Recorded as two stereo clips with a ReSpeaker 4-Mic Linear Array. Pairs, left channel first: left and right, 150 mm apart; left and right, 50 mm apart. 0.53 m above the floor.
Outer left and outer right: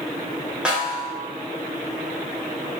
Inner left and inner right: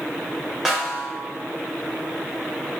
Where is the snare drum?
5° right (ahead or behind), 0.9 m.